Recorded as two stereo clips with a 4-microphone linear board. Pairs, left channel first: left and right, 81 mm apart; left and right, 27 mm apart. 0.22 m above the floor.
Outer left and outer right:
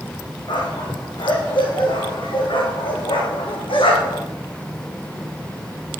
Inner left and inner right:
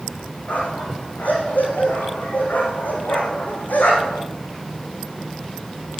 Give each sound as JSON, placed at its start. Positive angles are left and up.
{"t": 0.5, "sound": "a dog barking", "side_deg": 65, "distance_m": 5.0}